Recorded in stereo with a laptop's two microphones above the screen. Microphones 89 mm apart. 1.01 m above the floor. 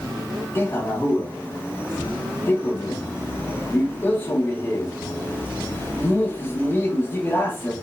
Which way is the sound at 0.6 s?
25° left (ahead or behind).